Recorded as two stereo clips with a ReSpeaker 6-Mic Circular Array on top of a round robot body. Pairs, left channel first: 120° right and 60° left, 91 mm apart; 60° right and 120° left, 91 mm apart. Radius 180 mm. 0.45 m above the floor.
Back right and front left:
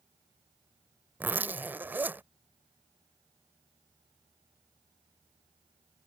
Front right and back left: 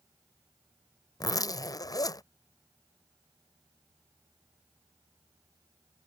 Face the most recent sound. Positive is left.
turn(degrees=-10)